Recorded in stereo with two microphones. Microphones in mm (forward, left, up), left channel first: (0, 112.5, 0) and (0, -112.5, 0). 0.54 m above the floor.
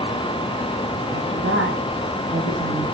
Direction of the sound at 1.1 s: 60° right (ahead or behind).